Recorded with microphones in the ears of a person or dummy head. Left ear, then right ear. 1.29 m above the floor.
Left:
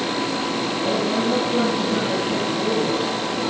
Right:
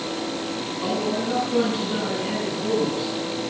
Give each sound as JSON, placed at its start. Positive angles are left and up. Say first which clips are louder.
{"t": 0.8, "sound": "a man speaking", "louder": "left 2 dB", "side_deg": -15, "distance_m": 9.5}